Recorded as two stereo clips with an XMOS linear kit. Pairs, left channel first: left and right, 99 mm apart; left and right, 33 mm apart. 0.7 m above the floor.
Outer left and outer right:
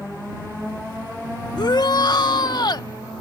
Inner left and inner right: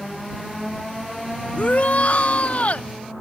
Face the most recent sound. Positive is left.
turn(degrees=45)  # may be behind; listen again after turning